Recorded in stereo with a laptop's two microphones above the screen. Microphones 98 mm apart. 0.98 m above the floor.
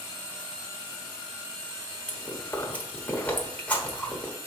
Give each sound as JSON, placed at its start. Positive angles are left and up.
{"t": 2.1, "sound": "chewing", "side_deg": 15, "distance_m": 1.2}